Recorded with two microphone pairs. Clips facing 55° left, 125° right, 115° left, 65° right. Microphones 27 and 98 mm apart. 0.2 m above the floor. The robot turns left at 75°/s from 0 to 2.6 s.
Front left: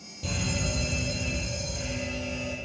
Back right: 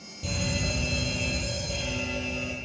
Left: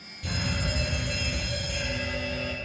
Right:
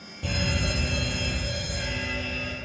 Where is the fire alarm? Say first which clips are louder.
Back right 1 dB, right 3 dB; 30° right, 8.5 m; by 2.5 s 160° left, 8.5 m.